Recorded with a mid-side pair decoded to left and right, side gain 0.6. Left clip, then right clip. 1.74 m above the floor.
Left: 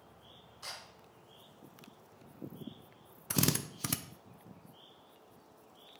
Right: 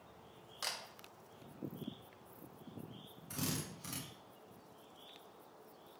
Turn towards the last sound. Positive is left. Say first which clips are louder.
# left 9 dB
turn(degrees=65)